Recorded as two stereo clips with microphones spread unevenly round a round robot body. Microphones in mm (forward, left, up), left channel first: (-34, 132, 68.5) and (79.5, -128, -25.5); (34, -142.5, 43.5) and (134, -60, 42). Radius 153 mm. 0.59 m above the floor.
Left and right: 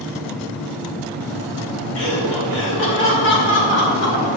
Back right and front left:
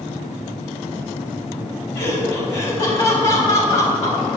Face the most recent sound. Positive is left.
turn(degrees=170)